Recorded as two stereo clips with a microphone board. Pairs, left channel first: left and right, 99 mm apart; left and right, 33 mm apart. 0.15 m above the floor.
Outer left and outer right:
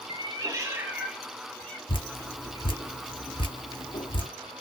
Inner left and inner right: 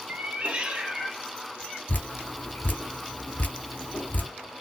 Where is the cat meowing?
50° right (ahead or behind), 1.1 m; by 1.8 s 10° left (ahead or behind), 1.6 m.